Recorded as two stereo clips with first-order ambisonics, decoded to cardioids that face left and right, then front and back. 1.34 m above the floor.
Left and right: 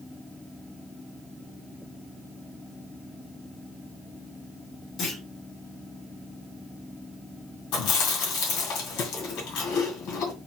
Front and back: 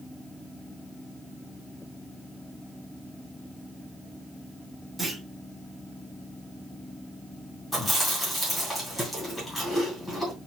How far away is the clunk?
About 1.8 m.